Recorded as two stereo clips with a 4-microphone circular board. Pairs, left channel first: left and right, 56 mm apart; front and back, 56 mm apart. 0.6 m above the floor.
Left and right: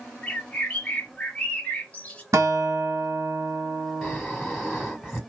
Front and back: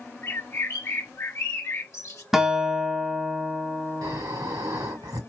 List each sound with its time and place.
0.2 s a bird: 25° left, 1.0 m
2.3 s a guitar: 95° right, 0.8 m
4.0 s snoring: 175° right, 2 m